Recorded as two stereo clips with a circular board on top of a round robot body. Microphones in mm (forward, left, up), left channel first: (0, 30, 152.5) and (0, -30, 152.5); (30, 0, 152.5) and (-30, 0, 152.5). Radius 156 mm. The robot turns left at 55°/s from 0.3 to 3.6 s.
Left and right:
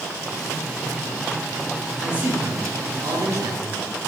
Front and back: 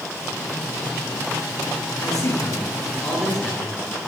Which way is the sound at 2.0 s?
10° right.